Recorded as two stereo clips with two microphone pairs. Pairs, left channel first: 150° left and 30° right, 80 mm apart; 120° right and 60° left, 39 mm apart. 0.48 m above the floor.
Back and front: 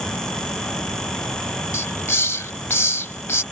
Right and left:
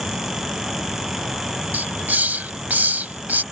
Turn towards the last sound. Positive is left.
turn(degrees=95)